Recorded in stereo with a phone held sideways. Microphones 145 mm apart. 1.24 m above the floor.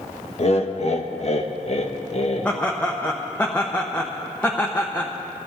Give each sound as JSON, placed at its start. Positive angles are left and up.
{"t": 0.4, "sound": "laughter", "side_deg": 45, "distance_m": 1.3}
{"t": 2.5, "sound": "laughter", "side_deg": 10, "distance_m": 1.0}